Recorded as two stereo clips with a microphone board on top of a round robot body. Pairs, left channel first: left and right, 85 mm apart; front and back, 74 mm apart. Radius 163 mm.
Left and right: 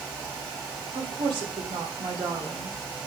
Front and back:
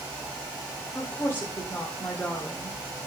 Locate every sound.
0.9 s a woman speaking: 65° right, 2.5 m